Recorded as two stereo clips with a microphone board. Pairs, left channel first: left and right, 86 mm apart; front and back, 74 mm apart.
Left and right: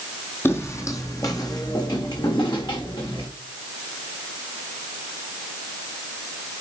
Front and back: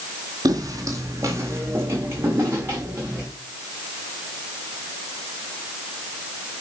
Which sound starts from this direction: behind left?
Footsteps, at 0.5 s.